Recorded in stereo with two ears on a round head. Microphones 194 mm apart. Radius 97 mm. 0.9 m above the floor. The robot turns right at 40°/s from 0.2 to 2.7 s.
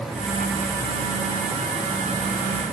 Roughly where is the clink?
No clink in this recording.